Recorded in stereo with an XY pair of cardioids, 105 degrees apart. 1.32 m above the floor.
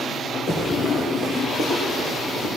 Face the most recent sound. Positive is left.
turn(degrees=65)